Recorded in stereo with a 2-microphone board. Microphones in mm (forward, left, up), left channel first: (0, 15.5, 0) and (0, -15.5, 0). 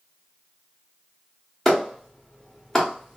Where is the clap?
10° left (ahead or behind), 1.1 m.